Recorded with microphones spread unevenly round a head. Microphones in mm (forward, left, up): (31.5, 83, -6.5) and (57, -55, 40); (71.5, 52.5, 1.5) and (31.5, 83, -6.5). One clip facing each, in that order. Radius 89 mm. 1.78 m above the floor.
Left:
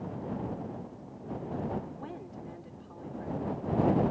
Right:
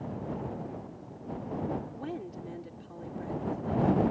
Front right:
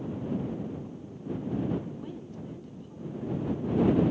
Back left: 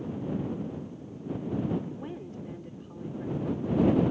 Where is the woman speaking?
140° right.